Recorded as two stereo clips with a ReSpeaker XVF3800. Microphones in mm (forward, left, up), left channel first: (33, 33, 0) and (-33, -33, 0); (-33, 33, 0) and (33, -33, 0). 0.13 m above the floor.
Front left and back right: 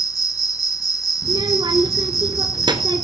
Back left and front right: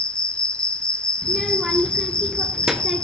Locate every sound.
0.0 s an insect: 60° left, 1.2 m
1.2 s a child speaking: 130° right, 1.8 m